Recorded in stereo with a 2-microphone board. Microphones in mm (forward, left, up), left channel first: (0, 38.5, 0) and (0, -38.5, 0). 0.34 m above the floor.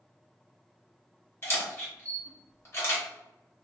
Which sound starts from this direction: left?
A camera shutter, at 1.4 s.